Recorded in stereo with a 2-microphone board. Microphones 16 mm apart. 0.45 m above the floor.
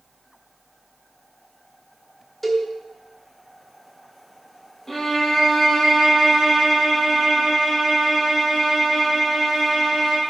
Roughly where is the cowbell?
Centre.